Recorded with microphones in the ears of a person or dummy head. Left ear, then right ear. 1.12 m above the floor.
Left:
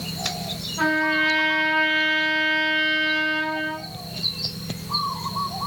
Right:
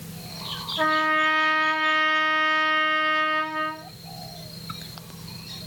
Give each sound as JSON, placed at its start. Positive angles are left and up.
{"t": 0.8, "sound": "a trumpet", "side_deg": -20, "distance_m": 1.8}